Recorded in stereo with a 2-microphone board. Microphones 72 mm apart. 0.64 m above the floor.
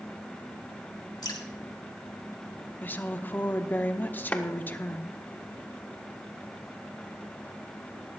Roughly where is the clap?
Left.